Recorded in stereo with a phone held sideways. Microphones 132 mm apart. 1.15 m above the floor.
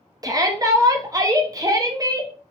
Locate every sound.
0.2 s a shout: 25° right (ahead or behind), 0.7 m